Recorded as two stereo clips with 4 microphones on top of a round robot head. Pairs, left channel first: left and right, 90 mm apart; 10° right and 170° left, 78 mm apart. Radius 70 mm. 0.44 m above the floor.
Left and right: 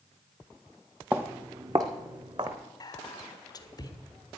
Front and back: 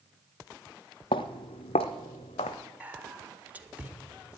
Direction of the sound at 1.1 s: 15° right.